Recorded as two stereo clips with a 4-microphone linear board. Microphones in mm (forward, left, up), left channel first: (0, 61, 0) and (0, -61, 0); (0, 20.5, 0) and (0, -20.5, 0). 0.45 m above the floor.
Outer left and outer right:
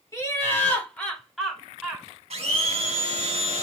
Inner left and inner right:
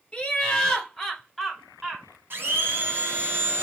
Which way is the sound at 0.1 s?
25° left (ahead or behind).